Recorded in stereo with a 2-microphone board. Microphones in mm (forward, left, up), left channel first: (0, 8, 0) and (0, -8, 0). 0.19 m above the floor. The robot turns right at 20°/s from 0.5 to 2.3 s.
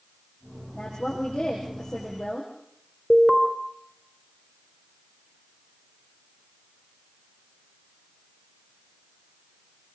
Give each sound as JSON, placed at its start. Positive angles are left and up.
{"t": 0.7, "sound": "a woman speaking", "azimuth_deg": 90, "distance_m": 7.5}
{"t": 3.1, "sound": "an alarm", "side_deg": 10, "distance_m": 3.5}